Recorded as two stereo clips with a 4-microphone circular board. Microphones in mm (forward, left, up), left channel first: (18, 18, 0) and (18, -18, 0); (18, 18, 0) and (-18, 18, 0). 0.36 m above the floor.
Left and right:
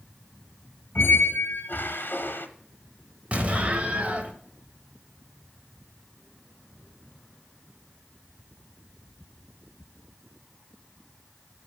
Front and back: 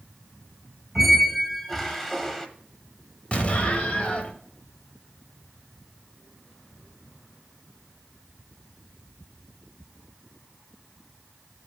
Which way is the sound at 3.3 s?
45° right.